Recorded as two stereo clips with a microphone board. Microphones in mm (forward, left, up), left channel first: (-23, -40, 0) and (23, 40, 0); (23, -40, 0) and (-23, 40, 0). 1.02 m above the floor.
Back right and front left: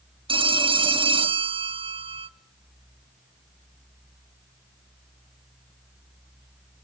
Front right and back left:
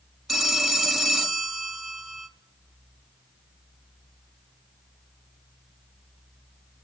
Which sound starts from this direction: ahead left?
A phone ringing, at 0.3 s.